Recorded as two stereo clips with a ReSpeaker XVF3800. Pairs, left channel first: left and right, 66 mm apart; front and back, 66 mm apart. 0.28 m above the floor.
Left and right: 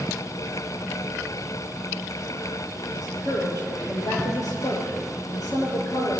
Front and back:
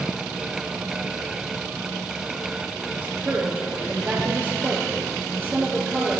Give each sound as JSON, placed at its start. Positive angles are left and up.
{"t": 2.9, "sound": "a woman speaking", "azimuth_deg": 115, "distance_m": 6.5}